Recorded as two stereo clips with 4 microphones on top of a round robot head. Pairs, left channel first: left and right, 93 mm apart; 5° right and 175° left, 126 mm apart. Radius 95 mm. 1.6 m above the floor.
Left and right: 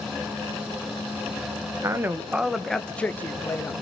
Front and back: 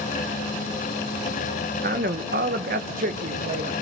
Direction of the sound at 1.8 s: 145° right.